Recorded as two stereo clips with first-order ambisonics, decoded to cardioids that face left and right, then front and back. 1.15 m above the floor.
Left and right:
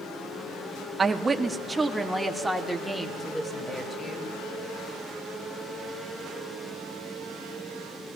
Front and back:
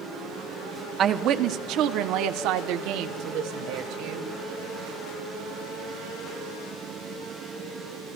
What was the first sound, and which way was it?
A woman speaking, 150° right.